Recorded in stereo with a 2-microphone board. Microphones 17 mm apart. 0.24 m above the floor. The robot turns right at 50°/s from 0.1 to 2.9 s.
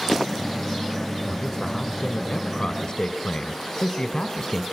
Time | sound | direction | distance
1.2 | a man speaking | 40° left | 1.7 m